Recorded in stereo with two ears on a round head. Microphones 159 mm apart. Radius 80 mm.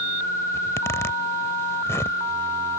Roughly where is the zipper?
Centre.